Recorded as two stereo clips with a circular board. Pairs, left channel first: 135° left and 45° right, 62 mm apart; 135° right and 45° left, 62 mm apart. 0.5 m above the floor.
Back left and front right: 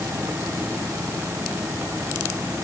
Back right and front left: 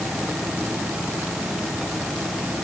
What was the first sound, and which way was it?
Only background noise.